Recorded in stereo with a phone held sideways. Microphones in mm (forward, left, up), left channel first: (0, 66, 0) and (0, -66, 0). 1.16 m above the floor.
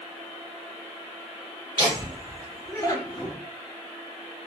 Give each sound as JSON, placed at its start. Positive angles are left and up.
{"t": 1.8, "sound": "laughter", "side_deg": -35, "distance_m": 1.5}